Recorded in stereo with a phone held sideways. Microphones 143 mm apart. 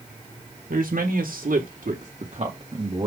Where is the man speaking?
80° right, 1.8 m; by 3.1 s 35° right (ahead or behind), 2 m.